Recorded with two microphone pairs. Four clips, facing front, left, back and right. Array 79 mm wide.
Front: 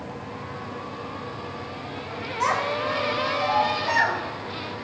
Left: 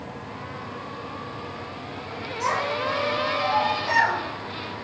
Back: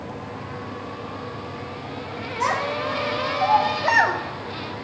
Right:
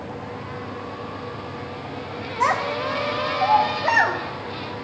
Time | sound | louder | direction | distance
2.4 | a child speaking | right 4 dB, even | 85° right | 0.9 m